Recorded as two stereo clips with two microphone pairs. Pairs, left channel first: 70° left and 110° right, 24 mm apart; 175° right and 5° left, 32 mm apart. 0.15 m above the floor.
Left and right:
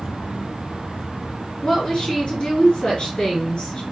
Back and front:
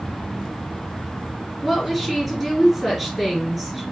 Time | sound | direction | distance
1.6 | a woman speaking | 105° left | 2 m